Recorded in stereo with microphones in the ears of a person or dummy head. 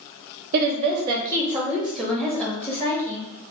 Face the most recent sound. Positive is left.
turn(degrees=15)  # may be behind; listen again after turning